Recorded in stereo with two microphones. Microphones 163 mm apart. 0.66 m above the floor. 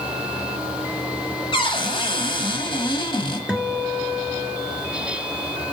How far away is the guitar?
About 1.3 m.